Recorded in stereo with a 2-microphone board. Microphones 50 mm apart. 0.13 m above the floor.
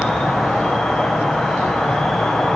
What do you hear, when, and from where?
0.0 s an insect: 10° left (ahead or behind), 3 m